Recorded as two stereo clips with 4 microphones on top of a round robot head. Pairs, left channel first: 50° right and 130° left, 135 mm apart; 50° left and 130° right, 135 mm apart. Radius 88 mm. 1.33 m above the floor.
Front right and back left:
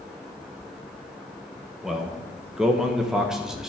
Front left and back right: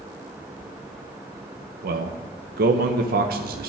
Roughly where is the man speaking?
Behind right.